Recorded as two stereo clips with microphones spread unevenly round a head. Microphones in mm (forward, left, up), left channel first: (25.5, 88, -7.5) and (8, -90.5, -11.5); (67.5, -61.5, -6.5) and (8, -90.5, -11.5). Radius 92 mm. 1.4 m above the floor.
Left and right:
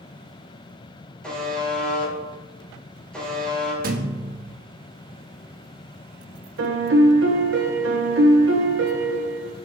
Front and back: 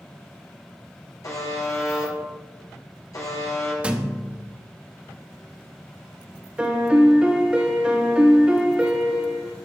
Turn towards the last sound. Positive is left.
turn(degrees=-80)